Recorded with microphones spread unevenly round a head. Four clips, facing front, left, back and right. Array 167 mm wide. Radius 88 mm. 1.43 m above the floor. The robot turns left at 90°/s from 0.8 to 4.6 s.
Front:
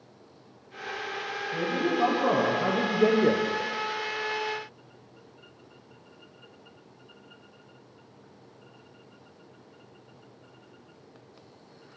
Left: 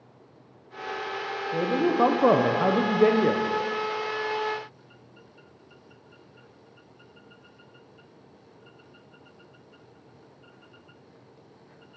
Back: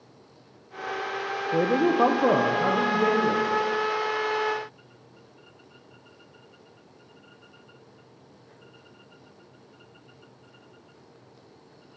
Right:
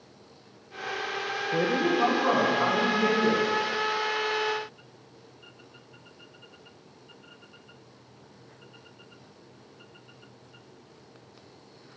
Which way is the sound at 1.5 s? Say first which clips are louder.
Left 2 dB, back 6 dB; 170° right.